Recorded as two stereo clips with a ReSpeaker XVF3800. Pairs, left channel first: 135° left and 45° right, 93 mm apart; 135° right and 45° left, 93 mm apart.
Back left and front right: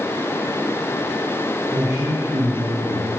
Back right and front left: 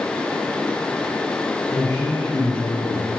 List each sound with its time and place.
1.7 s a man speaking: 90° right, 2.5 m; by 3.1 s 75° right, 3.5 m